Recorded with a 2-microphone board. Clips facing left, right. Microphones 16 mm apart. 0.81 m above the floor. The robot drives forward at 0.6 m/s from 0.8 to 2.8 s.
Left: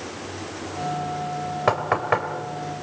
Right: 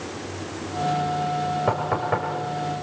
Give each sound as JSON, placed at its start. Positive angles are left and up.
{"t": 1.7, "sound": "knocking", "side_deg": 80, "distance_m": 3.0}